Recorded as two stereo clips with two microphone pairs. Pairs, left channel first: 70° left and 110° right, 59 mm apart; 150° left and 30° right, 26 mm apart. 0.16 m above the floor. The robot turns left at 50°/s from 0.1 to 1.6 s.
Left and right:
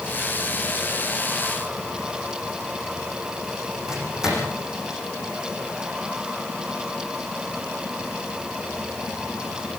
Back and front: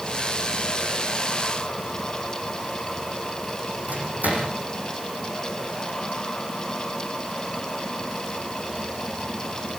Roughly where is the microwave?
Ahead right.